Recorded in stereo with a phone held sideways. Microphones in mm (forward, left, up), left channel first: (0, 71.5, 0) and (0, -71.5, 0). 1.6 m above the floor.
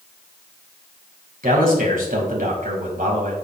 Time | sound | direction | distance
1.4 | a man speaking | 80° right | 2.5 m